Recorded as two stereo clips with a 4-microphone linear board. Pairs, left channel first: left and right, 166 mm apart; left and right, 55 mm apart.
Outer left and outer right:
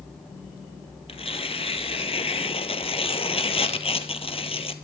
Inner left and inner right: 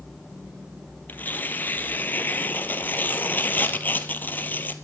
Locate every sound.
1.1 s tearing paper: 35° left (ahead or behind), 0.9 m